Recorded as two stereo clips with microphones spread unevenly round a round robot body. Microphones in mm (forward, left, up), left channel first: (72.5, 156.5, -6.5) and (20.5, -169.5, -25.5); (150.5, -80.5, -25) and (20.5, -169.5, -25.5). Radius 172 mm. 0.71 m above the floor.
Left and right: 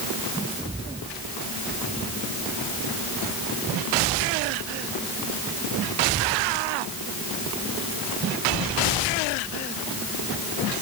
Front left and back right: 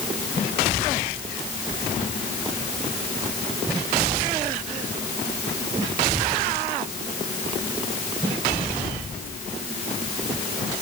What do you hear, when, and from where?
Only background noise.